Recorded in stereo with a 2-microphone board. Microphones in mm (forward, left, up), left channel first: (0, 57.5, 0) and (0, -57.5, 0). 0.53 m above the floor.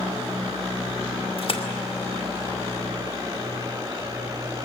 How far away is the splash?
About 2 m.